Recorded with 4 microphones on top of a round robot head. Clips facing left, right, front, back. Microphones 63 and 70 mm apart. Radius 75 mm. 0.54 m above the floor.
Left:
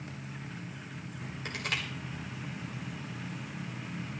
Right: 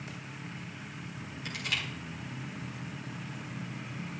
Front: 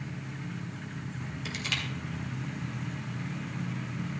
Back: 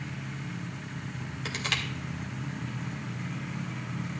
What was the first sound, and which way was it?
Crushing, 140° left.